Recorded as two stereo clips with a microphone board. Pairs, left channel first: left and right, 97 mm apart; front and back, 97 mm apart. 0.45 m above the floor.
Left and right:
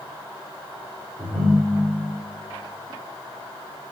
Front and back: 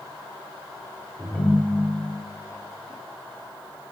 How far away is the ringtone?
About 0.5 m.